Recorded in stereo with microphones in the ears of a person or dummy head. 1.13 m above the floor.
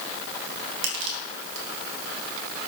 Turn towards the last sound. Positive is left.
turn(degrees=-70)  # may be behind; listen again after turning